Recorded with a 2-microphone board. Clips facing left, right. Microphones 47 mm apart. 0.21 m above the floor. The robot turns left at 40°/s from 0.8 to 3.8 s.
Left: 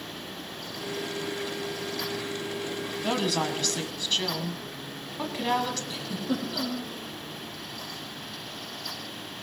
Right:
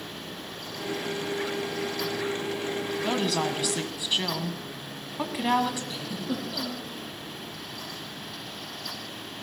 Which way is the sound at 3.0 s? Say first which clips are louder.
Left 1 dB; 10° left.